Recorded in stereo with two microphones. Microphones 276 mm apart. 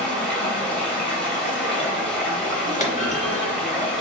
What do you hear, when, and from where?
0.0 s running water: 5° left (ahead or behind), 0.8 m
2.8 s a clunk: 30° left (ahead or behind), 0.5 m